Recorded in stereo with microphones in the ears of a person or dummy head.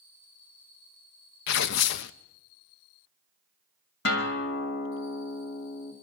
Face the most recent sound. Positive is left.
turn(degrees=55)  # may be behind; listen again after turning